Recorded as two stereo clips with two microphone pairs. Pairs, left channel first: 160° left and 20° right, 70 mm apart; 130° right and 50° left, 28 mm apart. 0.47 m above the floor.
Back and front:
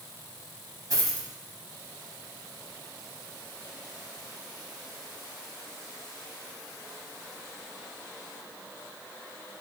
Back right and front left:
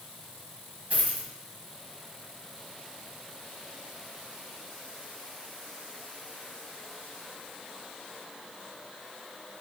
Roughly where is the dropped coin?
Ahead.